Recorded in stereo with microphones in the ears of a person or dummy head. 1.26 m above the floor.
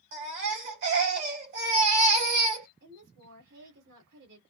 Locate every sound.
0.1 s a baby crying: 60° right (ahead or behind), 2 m
2.8 s a woman speaking: 65° right (ahead or behind), 1.9 m